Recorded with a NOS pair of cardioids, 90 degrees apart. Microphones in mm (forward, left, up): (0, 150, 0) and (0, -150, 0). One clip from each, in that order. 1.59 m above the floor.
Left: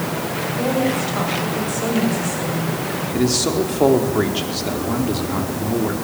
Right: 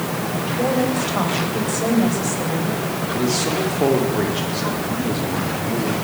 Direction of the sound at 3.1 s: 30° left.